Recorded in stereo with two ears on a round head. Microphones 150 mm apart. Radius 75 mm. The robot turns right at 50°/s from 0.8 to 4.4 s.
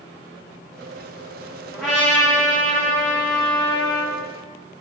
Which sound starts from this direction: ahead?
A trumpet, at 1.7 s.